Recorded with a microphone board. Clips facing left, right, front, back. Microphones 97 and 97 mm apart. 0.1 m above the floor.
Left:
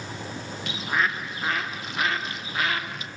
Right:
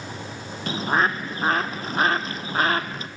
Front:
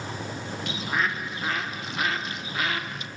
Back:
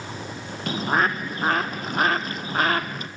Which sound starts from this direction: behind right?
A bird, at 0.7 s.